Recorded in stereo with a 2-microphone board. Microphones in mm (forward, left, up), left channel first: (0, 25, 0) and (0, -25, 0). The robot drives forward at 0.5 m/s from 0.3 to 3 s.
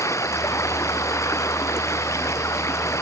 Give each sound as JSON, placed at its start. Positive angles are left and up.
{"t": 0.0, "sound": "running water", "side_deg": 65}